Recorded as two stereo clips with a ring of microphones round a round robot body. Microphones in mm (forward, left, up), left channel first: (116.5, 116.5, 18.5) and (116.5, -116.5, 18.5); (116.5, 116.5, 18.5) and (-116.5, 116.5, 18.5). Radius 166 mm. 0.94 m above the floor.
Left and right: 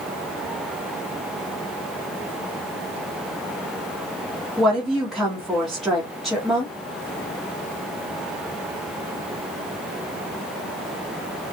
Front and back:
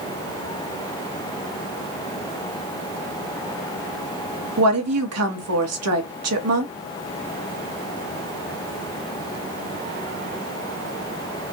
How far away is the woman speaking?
About 1.4 m.